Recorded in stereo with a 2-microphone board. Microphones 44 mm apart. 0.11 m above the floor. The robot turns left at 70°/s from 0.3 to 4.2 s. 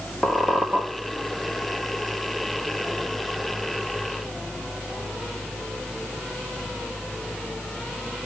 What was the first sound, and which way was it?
A squeak, 20° right.